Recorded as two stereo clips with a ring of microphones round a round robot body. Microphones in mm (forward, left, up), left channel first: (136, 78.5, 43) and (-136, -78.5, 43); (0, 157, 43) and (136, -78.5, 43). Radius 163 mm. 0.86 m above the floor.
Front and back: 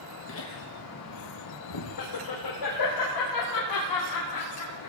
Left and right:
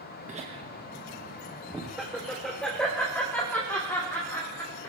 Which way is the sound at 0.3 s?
5° right.